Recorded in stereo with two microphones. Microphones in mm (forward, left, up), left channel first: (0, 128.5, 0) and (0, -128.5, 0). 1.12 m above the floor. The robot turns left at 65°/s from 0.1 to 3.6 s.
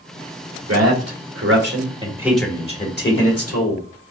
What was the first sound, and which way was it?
A man speaking, 70° right.